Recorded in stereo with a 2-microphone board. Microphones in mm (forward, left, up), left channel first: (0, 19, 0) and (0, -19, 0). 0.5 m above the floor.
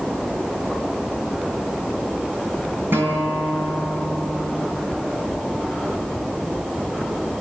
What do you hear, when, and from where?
2.9 s a guitar: 75° right (ahead or behind), 6 m